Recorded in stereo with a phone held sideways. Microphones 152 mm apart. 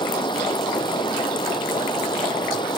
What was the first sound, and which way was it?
Running water, 30° left (ahead or behind).